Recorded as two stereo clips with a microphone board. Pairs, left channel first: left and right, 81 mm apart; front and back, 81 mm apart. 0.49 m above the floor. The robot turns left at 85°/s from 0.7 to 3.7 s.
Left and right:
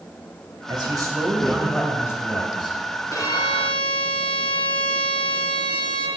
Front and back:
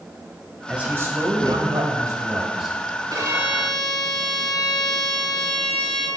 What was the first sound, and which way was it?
A man speaking, 100° right.